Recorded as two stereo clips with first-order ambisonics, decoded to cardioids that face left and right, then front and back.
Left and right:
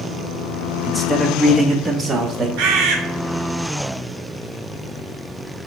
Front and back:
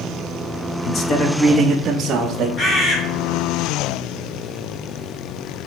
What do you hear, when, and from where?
0.8 s a man speaking: 15° left, 0.7 m; by 2.5 s 155° right, 0.9 m
2.6 s a bird: 65° right, 1.3 m